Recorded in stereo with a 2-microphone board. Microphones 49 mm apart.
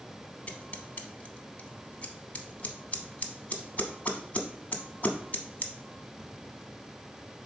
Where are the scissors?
35° left (ahead or behind), 0.6 m.